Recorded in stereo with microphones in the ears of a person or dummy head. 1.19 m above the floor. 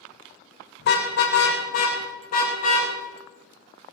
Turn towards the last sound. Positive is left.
turn(degrees=55)  # may be behind; listen again after turning